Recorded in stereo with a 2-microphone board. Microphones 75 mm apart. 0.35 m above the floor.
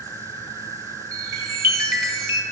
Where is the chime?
35° right (ahead or behind), 1.6 m.